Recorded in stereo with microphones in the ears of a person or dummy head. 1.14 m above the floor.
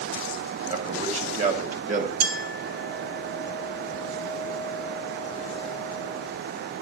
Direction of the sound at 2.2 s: 60° right (ahead or behind).